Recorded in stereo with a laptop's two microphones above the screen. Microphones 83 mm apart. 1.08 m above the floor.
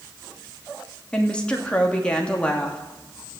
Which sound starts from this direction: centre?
A woman speaking, at 1.1 s.